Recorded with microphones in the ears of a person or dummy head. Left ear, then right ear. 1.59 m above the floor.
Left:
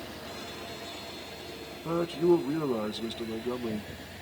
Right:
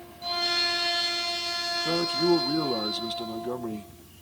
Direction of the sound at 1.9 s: 15° right (ahead or behind).